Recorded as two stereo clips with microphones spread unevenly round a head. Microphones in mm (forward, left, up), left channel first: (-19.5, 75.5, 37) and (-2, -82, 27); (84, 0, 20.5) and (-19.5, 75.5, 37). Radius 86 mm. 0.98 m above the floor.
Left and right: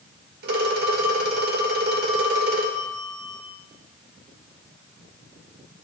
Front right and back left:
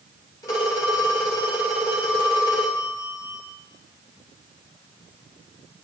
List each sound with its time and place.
0.4 s a phone ringing: 105° right, 3 m